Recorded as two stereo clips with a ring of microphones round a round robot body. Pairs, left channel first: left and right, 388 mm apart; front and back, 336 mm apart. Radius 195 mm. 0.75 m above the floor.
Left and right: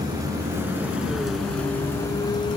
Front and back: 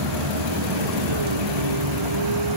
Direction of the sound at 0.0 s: 170° right.